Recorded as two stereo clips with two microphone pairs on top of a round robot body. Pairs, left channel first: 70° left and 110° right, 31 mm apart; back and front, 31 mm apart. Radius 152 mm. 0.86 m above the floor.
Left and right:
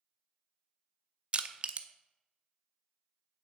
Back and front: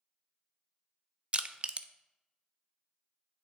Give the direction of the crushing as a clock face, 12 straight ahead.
2 o'clock.